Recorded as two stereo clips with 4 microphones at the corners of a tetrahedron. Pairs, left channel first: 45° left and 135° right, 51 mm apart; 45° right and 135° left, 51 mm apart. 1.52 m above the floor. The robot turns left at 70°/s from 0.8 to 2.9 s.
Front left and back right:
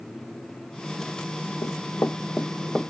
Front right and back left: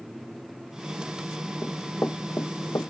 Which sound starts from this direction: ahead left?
Running footsteps, at 1.6 s.